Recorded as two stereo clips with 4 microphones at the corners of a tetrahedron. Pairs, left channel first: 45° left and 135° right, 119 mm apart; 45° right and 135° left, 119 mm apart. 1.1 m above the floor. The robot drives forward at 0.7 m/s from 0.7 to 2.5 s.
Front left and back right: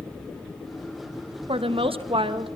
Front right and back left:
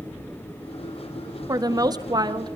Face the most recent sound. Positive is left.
turn(degrees=-175)